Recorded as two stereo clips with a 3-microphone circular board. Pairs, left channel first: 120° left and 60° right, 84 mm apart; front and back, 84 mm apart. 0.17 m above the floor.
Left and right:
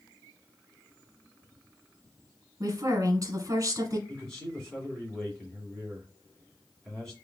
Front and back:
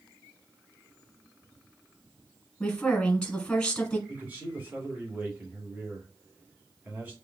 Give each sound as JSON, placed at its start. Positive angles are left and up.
{"t": 2.6, "sound": "a woman speaking", "azimuth_deg": -75, "distance_m": 1.4}
{"t": 4.1, "sound": "a man speaking", "azimuth_deg": -175, "distance_m": 1.7}